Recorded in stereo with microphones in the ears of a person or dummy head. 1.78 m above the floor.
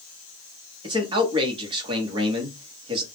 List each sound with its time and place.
0.8 s a man speaking: 25° right (ahead or behind), 0.9 m